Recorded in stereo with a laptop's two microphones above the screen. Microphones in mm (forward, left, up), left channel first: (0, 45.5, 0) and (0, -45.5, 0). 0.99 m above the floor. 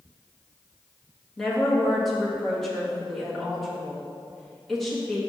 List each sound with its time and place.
1.4 s a woman speaking: 5° left (ahead or behind), 1.4 m